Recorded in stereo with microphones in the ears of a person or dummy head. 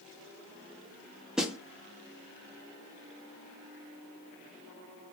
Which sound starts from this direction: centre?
A snare drum, at 1.4 s.